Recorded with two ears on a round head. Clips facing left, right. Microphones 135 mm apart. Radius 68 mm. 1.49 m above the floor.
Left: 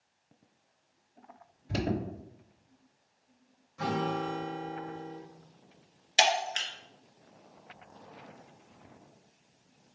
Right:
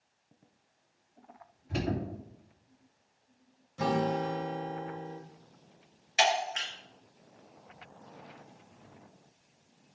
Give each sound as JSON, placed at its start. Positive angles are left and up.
{"t": 1.7, "sound": "an alarm", "side_deg": 45, "distance_m": 2.5}
{"t": 3.8, "sound": "a guitar", "side_deg": -35, "distance_m": 2.5}
{"t": 6.2, "sound": "breaking glass", "side_deg": 40, "distance_m": 2.5}